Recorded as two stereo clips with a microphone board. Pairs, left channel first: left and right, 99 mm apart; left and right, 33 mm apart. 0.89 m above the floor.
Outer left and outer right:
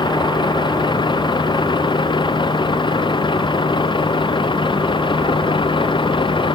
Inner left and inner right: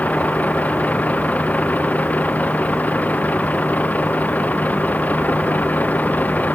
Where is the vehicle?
55° left (ahead or behind); by 6.6 s 60° left (ahead or behind).